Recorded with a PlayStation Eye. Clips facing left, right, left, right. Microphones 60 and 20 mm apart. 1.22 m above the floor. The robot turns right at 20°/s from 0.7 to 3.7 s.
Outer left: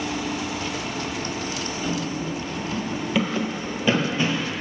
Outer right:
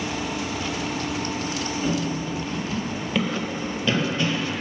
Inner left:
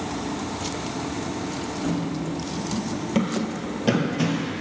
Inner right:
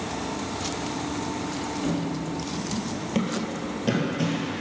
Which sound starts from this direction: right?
Running footsteps, at 1.8 s.